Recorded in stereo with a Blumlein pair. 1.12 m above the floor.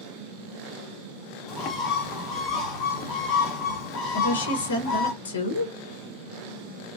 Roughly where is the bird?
Ahead left.